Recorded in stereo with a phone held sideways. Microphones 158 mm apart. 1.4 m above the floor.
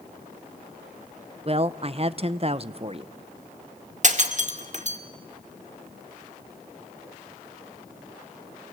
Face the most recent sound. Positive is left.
turn(degrees=-50)  # may be behind; listen again after turning